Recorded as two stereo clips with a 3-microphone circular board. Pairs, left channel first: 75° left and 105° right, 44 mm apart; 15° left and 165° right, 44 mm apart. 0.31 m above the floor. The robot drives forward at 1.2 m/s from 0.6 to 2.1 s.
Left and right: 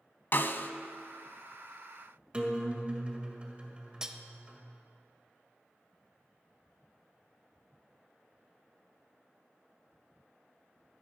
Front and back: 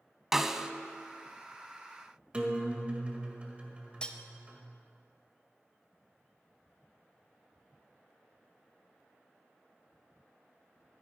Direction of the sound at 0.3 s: 110° left.